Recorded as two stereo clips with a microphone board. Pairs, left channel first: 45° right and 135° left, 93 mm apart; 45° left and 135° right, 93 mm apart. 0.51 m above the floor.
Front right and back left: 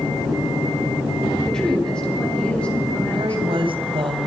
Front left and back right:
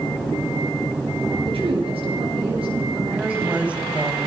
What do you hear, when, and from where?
1.4 s a woman speaking: 130° right, 9 m; by 3.9 s 120° right, 10 m
3.1 s a woman speaking: 150° left, 3.5 m